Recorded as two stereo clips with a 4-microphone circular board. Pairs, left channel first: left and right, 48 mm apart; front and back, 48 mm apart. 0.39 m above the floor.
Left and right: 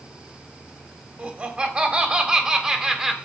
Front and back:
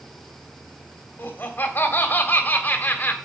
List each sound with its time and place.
1.2 s laughter: 40° right, 2.5 m; by 3.1 s 15° right, 1.9 m